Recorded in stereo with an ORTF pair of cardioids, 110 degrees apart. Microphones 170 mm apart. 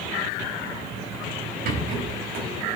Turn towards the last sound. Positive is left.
turn(degrees=-60)